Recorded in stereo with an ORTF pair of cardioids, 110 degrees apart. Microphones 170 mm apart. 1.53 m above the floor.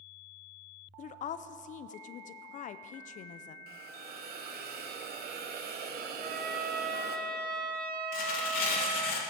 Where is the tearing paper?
60° left, 2.5 m.